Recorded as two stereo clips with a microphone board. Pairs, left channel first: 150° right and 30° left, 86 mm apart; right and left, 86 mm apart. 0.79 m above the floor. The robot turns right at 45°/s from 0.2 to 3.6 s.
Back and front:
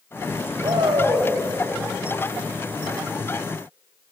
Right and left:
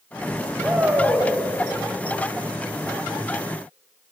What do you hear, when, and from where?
0.6 s a shout: 15° left, 3 m; by 1.3 s 45° left, 3 m